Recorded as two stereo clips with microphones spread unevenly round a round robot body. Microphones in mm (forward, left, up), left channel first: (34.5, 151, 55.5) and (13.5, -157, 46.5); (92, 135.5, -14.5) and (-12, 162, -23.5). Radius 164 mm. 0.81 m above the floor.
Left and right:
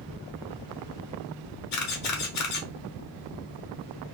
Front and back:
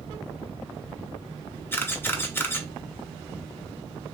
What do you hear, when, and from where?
1.7 s a camera shutter: 60° left, 0.9 m